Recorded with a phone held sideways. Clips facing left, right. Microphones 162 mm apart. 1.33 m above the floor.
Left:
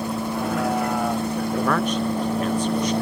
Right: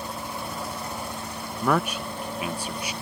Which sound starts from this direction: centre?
A man speaking, at 1.6 s.